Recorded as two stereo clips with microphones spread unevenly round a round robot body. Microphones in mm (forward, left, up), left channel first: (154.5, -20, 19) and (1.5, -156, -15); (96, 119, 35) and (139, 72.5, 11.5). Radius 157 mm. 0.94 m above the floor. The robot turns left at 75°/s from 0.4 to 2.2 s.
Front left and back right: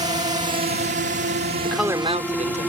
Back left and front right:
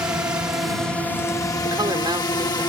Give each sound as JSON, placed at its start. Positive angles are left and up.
{"t": 0.0, "sound": "a drone", "azimuth_deg": -90}
{"t": 1.6, "sound": "a man speaking", "azimuth_deg": -40}